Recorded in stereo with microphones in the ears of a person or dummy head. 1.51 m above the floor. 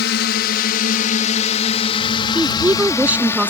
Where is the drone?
60° left (ahead or behind); by 3.5 s 15° left (ahead or behind).